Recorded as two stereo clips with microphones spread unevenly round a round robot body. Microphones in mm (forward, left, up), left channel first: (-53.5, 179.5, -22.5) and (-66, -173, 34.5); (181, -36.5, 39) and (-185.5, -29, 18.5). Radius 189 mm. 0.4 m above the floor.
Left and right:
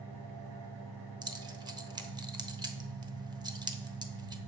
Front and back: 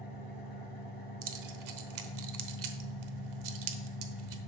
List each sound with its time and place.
0.0 s an engine running: 65° right, 3 m
1.2 s keys jangling: 175° right, 1.2 m